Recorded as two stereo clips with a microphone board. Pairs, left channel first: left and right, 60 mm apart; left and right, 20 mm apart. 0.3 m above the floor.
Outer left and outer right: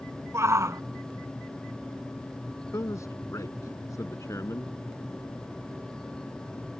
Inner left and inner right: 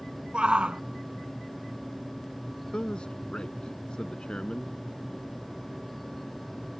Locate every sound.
0.3 s a shout: 55° right (ahead or behind)
2.7 s a man speaking: 60° left (ahead or behind)